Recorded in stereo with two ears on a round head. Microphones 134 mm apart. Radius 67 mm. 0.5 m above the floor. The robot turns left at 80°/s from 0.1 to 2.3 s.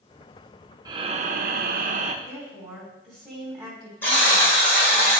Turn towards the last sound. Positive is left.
turn(degrees=15)  # may be behind; listen again after turning